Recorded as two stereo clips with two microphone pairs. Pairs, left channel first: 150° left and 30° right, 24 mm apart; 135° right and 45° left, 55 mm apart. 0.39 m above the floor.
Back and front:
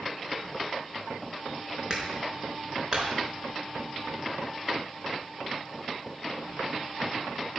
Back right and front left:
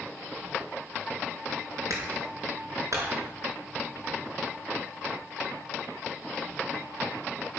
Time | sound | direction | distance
1.9 | a clap | 30° left | 5 m